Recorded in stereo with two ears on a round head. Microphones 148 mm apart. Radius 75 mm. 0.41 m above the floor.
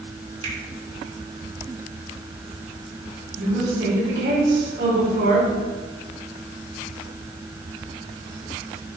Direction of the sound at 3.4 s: 70° right (ahead or behind).